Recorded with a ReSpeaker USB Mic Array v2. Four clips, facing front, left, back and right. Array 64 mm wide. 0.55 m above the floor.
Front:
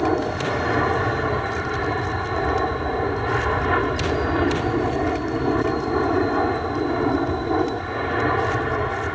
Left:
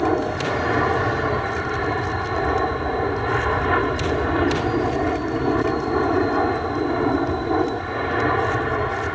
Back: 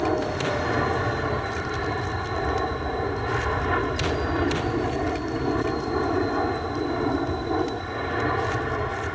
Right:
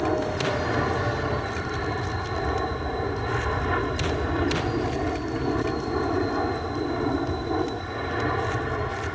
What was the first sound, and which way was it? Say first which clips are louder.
An aircraft: left 4 dB, front 3 dB; 65° left.